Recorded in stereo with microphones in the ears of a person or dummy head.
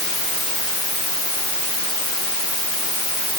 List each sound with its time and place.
Only background noise.